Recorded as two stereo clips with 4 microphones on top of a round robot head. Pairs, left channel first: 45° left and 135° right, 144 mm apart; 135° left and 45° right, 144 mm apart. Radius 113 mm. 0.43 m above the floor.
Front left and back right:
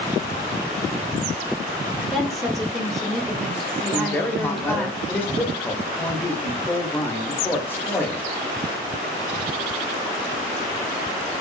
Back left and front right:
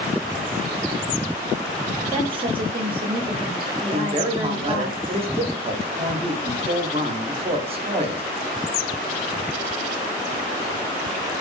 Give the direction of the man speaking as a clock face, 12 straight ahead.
1 o'clock.